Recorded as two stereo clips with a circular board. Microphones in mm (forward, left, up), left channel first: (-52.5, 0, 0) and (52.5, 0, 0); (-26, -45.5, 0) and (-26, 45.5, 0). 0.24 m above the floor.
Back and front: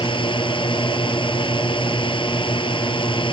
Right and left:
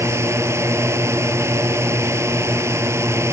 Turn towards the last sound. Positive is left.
turn(degrees=150)